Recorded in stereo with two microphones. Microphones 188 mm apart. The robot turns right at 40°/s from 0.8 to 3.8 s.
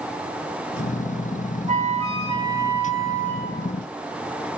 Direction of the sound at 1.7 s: 55° right.